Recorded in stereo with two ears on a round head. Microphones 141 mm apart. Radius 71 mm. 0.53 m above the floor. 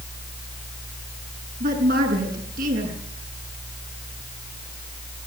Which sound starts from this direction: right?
A woman speaking, at 1.6 s.